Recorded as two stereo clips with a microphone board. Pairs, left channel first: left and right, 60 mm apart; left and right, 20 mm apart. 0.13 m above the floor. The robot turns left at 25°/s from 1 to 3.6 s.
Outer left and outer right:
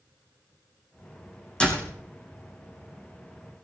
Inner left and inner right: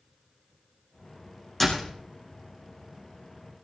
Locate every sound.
1.6 s a door slam: 15° left (ahead or behind), 5 m; by 1.9 s 20° left (ahead or behind), 5 m